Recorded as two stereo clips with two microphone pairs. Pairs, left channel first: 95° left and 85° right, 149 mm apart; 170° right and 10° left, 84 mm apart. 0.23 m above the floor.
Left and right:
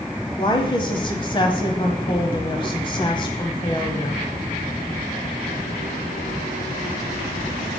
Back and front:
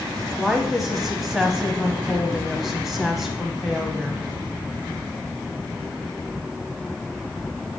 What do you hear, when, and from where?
0.4 s a woman speaking: 100° left, 1.0 m